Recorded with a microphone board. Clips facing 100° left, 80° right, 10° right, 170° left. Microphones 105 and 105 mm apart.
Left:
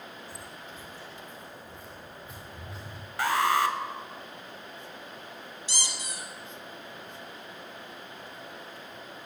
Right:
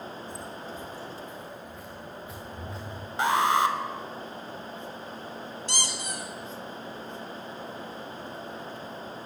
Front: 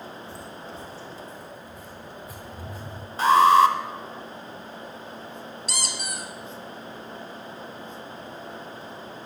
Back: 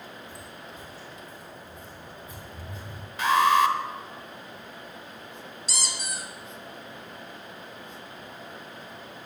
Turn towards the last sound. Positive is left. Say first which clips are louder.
# right 4 dB, front 1 dB
turn(degrees=-45)